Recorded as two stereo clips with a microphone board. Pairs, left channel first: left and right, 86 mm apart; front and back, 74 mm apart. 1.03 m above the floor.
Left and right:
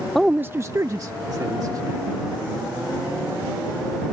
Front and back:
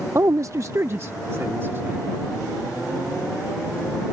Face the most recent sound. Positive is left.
turn(degrees=-125)